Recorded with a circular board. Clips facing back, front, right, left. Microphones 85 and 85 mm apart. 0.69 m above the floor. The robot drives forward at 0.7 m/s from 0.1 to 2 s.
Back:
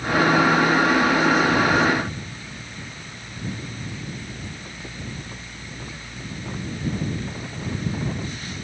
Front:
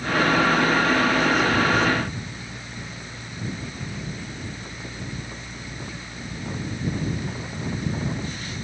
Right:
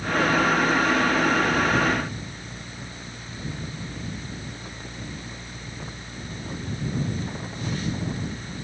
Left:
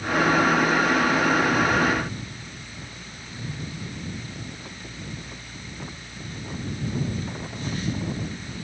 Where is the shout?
No shout in this recording.